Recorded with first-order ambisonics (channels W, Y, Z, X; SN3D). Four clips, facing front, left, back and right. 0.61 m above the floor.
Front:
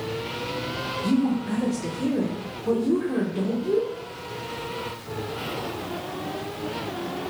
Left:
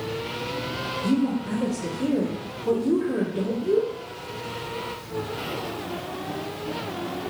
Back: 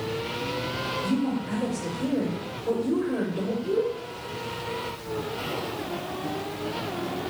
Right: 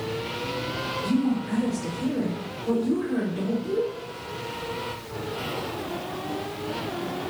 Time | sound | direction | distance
1.0 | a woman speaking | 50° left | 1.4 m